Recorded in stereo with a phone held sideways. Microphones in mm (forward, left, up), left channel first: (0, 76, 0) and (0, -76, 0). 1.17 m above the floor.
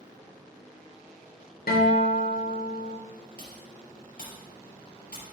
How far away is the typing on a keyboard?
About 3.5 m.